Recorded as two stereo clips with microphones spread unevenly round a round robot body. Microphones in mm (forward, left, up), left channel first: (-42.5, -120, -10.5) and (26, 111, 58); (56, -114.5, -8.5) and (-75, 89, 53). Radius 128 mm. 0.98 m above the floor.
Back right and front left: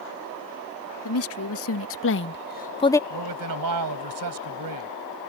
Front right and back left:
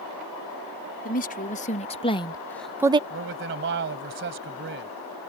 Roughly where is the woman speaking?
Right.